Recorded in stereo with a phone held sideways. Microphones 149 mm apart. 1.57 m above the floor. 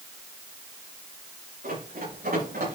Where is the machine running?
I don't hear a machine running.